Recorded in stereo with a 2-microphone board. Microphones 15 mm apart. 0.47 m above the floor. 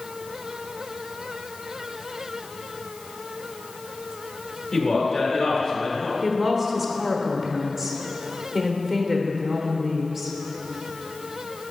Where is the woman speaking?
15° right (ahead or behind), 1.0 m.